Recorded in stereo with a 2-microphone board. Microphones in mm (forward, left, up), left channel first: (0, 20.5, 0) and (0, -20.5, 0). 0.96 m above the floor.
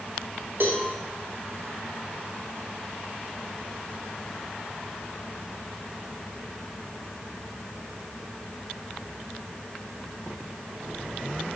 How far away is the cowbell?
About 0.7 m.